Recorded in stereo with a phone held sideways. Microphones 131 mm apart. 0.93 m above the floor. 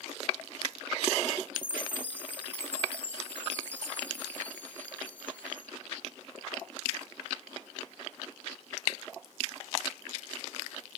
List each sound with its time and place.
1.6 s a chime: 10° left (ahead or behind)